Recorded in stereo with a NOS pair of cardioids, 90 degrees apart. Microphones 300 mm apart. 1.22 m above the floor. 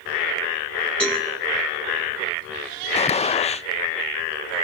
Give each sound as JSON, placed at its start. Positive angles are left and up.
{"t": 1.0, "sound": "a cowbell", "azimuth_deg": 5, "distance_m": 8.0}
{"t": 2.9, "sound": "a gunshot", "azimuth_deg": 20, "distance_m": 0.8}